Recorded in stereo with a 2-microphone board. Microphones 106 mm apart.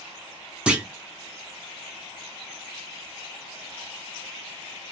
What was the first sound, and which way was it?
A clunk, 10° right (ahead or behind).